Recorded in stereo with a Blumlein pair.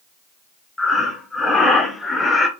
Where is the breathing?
10° left, 1.4 m.